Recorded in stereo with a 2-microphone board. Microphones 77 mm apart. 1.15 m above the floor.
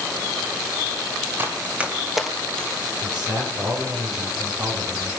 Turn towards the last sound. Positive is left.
turn(degrees=-75)  # may be behind; listen again after turning